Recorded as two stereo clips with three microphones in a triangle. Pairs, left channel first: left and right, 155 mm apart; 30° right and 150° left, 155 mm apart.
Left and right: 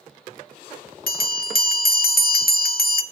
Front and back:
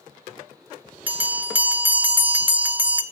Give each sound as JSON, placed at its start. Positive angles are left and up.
{"t": 1.1, "sound": "a bell", "azimuth_deg": 70, "distance_m": 0.6}